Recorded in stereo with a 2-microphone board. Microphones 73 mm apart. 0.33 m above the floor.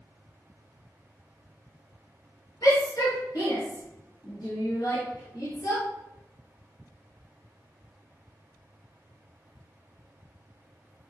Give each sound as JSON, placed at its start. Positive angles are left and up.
{"t": 2.6, "sound": "a shout", "side_deg": 60, "distance_m": 3.0}